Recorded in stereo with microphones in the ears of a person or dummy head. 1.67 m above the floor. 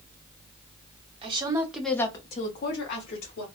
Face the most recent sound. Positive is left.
turn(degrees=75)  # may be behind; listen again after turning